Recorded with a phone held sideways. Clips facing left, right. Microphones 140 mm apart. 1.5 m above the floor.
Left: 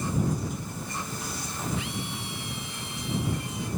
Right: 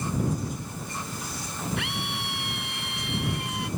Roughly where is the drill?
Right.